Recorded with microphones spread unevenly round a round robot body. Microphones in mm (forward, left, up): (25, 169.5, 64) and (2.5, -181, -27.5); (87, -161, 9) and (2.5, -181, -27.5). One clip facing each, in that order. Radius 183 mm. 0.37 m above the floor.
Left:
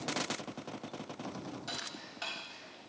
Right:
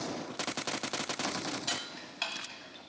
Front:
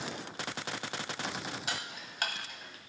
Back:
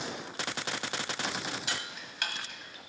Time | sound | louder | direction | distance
1.7 | ticking | right 3 dB, back 1 dB | 40° right | 1.5 m